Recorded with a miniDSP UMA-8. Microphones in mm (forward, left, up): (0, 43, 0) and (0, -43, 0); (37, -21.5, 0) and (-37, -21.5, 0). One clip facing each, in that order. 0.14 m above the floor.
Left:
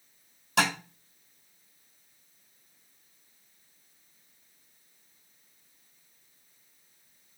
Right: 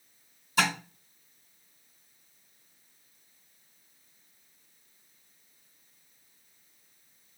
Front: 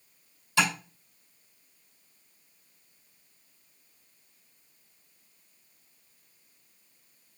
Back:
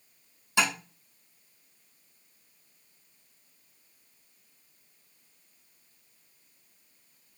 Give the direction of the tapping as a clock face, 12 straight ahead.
8 o'clock.